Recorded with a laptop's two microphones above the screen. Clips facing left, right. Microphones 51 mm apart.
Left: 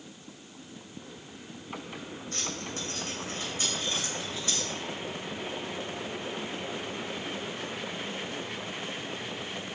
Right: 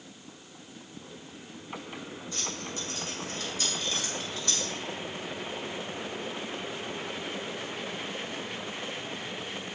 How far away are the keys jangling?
About 3.5 m.